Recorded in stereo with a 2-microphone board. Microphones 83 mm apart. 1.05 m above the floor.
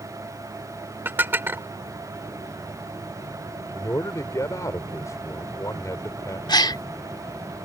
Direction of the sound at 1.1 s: 25° right (ahead or behind).